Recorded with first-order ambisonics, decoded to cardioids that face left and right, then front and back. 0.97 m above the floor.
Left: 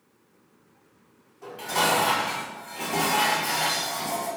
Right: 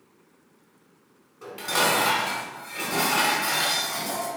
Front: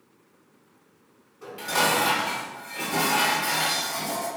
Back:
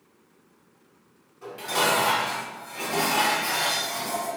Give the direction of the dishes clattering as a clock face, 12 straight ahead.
3 o'clock.